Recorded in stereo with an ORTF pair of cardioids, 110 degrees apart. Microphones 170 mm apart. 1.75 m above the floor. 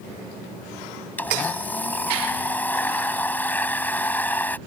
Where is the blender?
10° left.